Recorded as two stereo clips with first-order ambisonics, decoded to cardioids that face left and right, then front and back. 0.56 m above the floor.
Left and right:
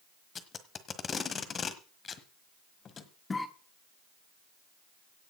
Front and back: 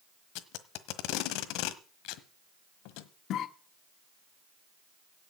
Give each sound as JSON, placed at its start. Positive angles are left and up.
{"t": 0.3, "sound": "tape being pulled", "azimuth_deg": 25, "distance_m": 1.3}
{"t": 3.3, "sound": "a cough", "azimuth_deg": 20, "distance_m": 1.1}